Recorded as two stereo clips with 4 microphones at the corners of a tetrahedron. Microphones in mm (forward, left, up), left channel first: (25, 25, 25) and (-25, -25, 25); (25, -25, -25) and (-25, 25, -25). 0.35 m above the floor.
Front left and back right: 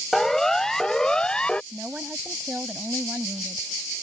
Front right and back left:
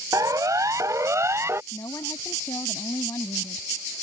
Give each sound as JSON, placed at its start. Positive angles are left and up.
{"t": 0.1, "sound": "a siren", "azimuth_deg": 130}
{"t": 1.7, "sound": "a woman speaking", "azimuth_deg": -70}